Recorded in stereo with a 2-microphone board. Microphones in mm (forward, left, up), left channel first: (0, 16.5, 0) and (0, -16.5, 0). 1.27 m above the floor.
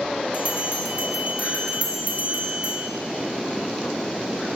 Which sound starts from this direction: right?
A bell, at 0.3 s.